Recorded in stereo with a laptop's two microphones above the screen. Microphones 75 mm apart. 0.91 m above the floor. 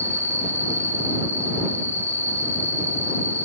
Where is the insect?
35° right (ahead or behind).